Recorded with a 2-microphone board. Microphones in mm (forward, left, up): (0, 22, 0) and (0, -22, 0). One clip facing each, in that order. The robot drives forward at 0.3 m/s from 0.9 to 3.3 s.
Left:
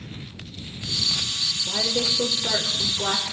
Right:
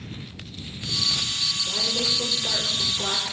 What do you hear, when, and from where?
1.7 s a woman speaking: 30° left (ahead or behind), 1.7 m; by 3.2 s 35° left (ahead or behind), 1.5 m